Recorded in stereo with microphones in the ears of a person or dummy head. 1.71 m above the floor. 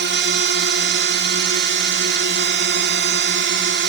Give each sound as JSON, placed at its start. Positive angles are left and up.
{"t": 0.0, "sound": "a drone", "side_deg": -55}